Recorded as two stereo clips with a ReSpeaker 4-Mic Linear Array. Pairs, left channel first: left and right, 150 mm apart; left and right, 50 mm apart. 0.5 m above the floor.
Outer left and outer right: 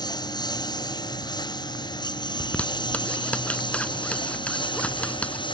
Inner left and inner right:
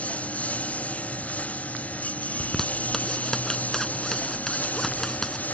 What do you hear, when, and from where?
0.0 s a lawn mower: 25° left (ahead or behind); by 5.5 s 30° left (ahead or behind)
2.4 s a zipper: 10° left (ahead or behind)